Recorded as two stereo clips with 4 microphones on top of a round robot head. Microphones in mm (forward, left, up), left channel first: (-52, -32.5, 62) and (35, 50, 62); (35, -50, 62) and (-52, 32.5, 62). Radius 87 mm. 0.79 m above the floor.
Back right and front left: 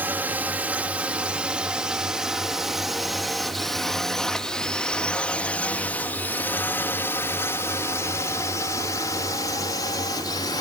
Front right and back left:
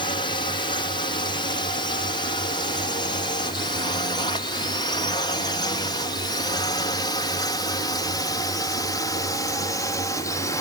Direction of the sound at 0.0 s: 25° right.